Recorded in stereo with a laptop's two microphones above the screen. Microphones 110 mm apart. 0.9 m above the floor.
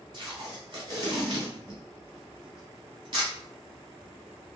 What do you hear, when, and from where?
0.1 s tape being pulled: 50° right (ahead or behind), 1.4 m